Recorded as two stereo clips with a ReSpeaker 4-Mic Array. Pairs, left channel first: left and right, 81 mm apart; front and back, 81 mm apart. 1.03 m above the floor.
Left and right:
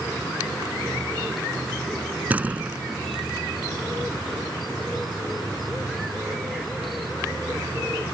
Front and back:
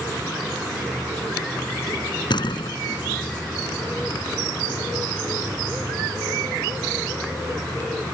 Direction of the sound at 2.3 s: 20° right.